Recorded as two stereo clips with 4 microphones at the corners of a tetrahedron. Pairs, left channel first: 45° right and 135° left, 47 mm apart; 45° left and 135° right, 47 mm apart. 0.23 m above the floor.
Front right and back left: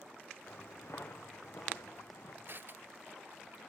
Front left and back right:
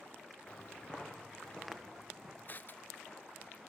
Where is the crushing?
95° left, 0.7 m.